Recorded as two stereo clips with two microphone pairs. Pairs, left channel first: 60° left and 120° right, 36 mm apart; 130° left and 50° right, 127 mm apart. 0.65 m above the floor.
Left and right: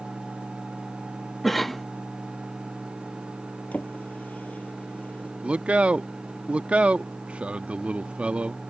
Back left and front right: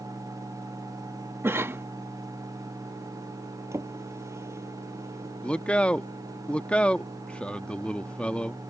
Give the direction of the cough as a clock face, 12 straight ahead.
12 o'clock.